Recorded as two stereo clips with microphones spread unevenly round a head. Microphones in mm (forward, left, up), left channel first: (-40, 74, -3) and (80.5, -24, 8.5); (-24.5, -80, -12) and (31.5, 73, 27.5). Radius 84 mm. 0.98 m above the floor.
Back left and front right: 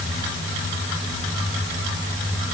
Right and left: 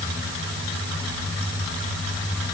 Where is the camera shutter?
No camera shutter in this recording.